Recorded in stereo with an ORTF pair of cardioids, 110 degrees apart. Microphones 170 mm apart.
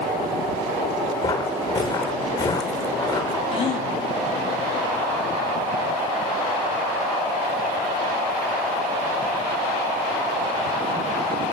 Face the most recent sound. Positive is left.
turn(degrees=40)